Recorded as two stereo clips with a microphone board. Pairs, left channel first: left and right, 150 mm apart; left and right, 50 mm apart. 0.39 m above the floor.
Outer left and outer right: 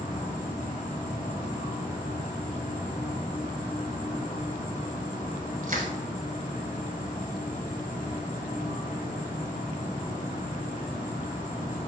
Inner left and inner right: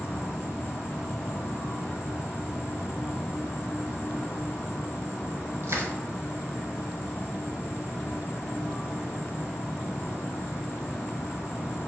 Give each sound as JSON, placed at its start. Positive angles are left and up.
{"t": 0.0, "sound": "an insect", "side_deg": 70, "distance_m": 1.8}
{"t": 5.6, "sound": "crushing", "side_deg": -65, "distance_m": 1.2}